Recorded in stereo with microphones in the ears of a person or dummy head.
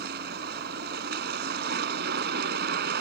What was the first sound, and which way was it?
A vehicle, 65° right (ahead or behind).